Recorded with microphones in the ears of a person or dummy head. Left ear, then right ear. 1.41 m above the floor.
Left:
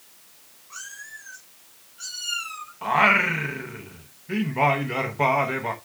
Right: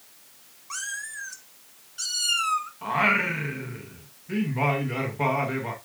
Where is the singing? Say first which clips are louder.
Left 6 dB; 20° left (ahead or behind), 1.1 m.